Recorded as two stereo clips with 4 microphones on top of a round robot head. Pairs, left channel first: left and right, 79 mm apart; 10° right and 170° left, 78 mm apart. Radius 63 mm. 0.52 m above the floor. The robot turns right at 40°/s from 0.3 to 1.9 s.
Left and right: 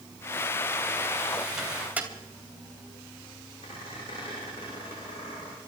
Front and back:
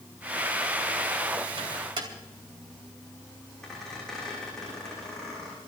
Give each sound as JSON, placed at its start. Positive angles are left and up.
{"t": 1.6, "sound": "a microwave", "azimuth_deg": -175, "distance_m": 3.0}
{"t": 3.6, "sound": "a squeak", "azimuth_deg": 75, "distance_m": 10.0}